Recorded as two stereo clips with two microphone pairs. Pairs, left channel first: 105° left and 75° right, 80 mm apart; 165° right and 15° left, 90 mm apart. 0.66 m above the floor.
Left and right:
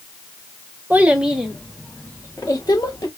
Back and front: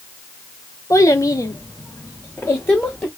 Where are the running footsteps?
I don't hear running footsteps.